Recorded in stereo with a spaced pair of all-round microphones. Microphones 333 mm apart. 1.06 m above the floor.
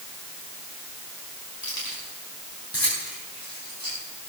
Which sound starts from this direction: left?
Keys jangling, at 1.6 s.